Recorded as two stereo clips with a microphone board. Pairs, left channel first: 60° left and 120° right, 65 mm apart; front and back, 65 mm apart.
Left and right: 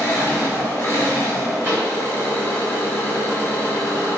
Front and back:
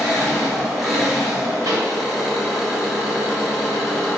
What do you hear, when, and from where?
0.0 s an engine running: 95° left, 1.1 m
1.6 s a pop: 170° right, 1.9 m